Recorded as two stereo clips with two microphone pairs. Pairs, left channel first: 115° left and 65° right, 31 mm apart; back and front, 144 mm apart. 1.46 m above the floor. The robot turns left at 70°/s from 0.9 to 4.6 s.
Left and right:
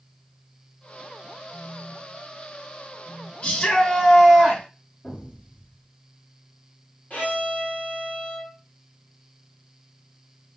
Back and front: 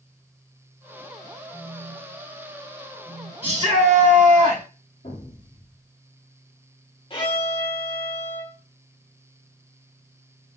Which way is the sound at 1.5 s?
35° left.